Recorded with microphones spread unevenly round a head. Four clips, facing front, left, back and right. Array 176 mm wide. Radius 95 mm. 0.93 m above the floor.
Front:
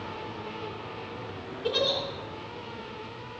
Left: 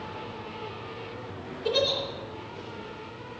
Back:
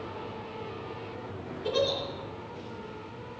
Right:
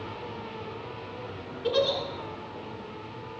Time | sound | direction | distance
1.6 | a giggle | 50° right | 3.5 m